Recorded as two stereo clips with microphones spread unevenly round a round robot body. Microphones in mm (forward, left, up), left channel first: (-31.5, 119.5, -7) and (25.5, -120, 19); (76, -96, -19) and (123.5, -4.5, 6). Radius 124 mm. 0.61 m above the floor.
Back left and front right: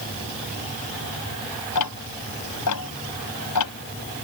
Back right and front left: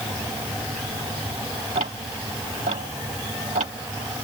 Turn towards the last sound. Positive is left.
turn(degrees=105)